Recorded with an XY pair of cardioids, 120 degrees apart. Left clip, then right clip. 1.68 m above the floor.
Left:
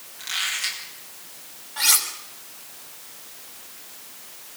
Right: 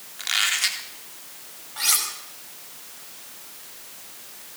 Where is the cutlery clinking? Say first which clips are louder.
Left 3 dB; 10° left, 5.5 m.